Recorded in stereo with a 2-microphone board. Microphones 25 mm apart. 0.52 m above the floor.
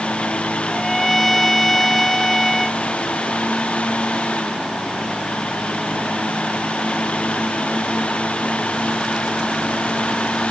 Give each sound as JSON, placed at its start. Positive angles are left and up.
{"t": 0.7, "sound": "a trumpet", "side_deg": 5}